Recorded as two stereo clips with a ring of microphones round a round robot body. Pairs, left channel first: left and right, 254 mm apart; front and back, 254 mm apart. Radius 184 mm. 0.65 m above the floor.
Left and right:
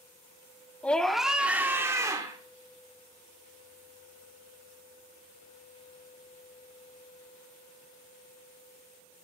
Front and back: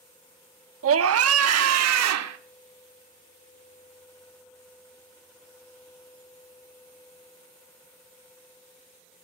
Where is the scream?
175° left, 0.9 m; by 2.4 s 170° right, 1.6 m.